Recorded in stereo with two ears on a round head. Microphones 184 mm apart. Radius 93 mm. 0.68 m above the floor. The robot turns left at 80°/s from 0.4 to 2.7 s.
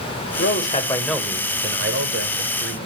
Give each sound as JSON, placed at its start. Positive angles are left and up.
{"t": 0.4, "sound": "a man speaking", "azimuth_deg": 60, "distance_m": 3.5}